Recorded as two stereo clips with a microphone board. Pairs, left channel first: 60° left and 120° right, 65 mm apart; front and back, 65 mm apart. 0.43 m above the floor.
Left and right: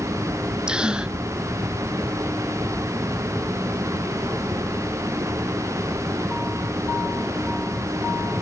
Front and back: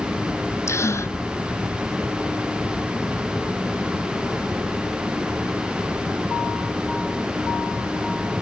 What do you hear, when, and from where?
0.7 s a gasp: 45° right